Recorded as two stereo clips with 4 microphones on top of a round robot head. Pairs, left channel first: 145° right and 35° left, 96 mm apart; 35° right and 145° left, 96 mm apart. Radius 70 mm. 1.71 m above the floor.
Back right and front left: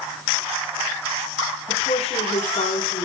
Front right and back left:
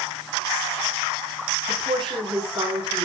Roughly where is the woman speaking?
Behind.